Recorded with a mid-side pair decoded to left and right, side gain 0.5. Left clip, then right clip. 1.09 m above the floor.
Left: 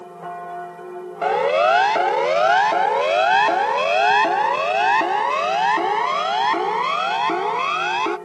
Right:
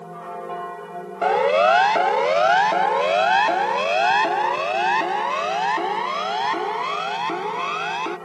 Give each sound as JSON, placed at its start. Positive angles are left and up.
{"t": 1.2, "sound": "a siren", "azimuth_deg": 0}